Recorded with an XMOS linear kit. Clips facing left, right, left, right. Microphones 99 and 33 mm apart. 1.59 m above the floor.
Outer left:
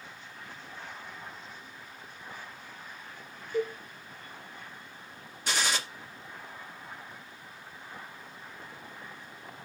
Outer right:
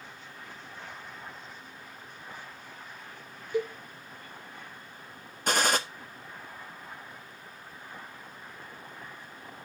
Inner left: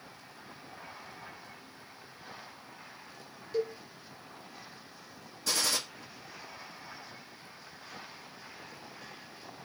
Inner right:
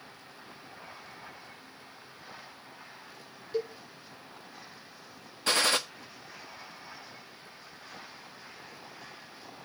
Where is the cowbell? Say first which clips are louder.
Even, inner left 1 dB; 20° right (ahead or behind), 4 m.